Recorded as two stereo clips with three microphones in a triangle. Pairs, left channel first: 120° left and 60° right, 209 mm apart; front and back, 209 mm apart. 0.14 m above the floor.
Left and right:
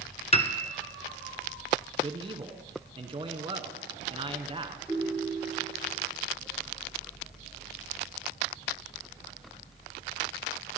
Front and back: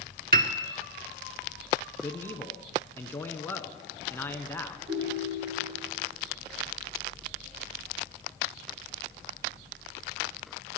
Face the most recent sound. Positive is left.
turn(degrees=-145)